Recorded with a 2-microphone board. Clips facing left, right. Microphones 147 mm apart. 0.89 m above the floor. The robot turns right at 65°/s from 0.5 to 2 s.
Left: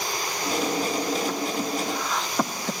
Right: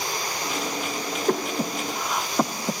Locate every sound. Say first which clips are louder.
1.3 s breathing: right 2 dB; 55° right (ahead or behind), 0.8 m; by 2.7 s 10° right (ahead or behind), 0.8 m